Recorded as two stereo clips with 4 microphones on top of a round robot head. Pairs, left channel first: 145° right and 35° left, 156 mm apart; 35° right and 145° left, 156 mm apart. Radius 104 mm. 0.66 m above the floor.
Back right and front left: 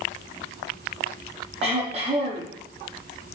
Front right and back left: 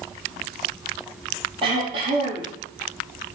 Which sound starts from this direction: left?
Throat clearing, at 1.6 s.